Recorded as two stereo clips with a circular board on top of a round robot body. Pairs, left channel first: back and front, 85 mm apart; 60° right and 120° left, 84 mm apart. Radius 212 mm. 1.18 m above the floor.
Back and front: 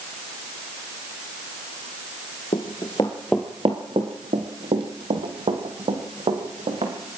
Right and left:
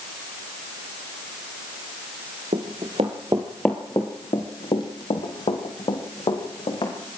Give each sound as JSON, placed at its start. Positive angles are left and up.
{"t": 2.5, "sound": "running footsteps", "azimuth_deg": 140, "distance_m": 1.5}